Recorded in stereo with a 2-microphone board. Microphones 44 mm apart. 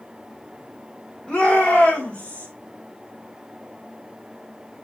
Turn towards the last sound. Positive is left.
turn(degrees=35)  # may be behind; listen again after turning